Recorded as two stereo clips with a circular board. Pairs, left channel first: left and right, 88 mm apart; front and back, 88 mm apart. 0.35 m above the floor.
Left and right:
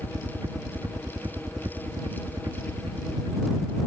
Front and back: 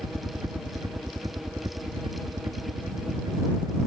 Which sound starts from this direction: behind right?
A helicopter, at 0.0 s.